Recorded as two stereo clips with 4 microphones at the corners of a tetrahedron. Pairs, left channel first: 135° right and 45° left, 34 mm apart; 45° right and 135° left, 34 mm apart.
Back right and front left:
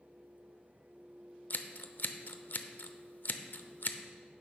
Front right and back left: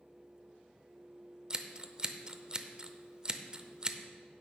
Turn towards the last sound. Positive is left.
turn(degrees=-165)